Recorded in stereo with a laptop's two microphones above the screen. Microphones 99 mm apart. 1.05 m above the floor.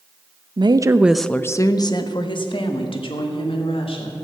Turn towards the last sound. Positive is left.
turn(degrees=70)  # may be behind; listen again after turning